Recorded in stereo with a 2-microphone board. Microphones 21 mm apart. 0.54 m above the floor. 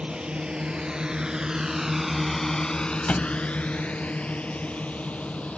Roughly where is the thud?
Left.